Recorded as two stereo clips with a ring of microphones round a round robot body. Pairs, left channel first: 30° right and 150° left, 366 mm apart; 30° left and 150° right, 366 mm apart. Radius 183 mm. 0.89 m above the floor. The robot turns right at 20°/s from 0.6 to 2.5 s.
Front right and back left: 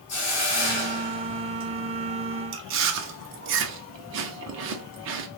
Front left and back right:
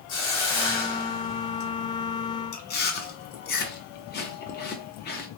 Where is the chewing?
95° left, 0.5 m.